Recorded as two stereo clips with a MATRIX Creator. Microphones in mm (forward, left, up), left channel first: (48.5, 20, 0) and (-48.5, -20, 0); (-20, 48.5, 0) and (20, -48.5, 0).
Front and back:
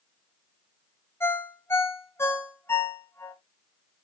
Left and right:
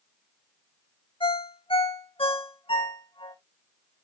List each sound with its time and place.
1.2 s a ringtone: 85° left, 1.3 m